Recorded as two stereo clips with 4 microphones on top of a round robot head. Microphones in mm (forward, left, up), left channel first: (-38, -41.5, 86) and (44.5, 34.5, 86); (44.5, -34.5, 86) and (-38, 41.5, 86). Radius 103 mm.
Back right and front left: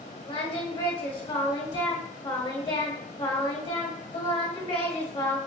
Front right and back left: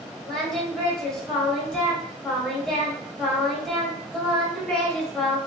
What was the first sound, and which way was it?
Singing, 125° right.